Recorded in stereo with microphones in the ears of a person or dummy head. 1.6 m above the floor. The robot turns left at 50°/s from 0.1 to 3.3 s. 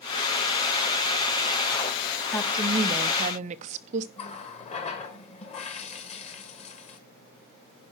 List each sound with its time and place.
2.3 s a woman speaking: 10° left, 0.9 m; by 4.1 s 40° right, 0.9 m
4.2 s a running tap: 35° left (ahead or behind), 1.3 m